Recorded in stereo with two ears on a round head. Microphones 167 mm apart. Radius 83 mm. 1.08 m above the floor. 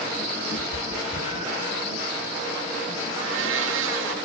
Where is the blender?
75° right (ahead or behind), 2.5 m.